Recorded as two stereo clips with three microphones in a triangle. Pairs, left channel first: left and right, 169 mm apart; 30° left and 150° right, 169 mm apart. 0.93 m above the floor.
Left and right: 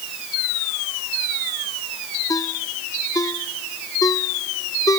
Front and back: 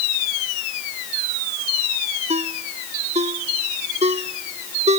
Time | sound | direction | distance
2.3 | a ringtone | 160° left | ?